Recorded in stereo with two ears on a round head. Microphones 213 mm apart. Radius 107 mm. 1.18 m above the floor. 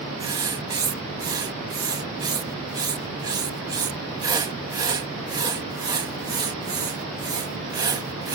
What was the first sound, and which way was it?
Writing, 15° right (ahead or behind).